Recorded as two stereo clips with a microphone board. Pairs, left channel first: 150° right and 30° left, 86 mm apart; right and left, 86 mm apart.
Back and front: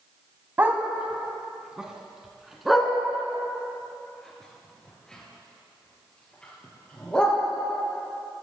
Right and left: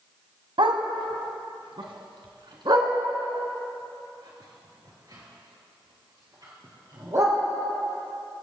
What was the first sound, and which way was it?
A dog barking, 95° left.